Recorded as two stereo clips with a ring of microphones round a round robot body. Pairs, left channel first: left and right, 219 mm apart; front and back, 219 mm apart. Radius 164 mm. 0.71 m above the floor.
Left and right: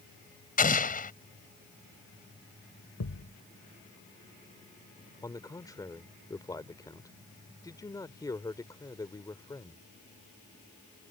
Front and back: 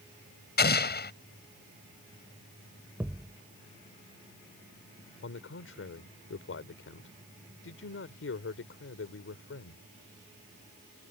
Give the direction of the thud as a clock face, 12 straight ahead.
9 o'clock.